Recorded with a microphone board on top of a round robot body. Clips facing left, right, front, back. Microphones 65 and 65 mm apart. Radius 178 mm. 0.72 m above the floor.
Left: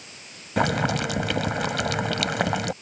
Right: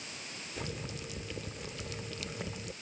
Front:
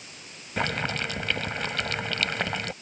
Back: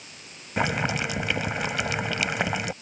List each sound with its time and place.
0.6 s boiling: 100° left